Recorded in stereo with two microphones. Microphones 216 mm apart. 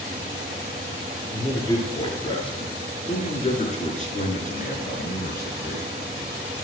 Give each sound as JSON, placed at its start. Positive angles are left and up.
{"t": 1.3, "sound": "a man speaking", "side_deg": 15, "distance_m": 5.0}